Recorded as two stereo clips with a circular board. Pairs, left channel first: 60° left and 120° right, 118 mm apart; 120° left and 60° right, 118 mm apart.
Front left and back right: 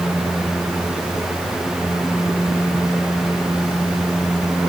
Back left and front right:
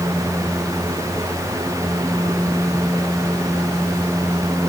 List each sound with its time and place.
Only background noise.